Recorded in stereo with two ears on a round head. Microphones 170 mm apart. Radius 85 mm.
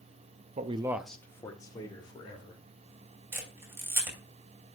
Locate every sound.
0.6 s a man speaking: 35° right (ahead or behind), 0.6 m; by 2.6 s 25° left (ahead or behind), 2.5 m
3.3 s a camera shutter: 15° right (ahead or behind), 2.5 m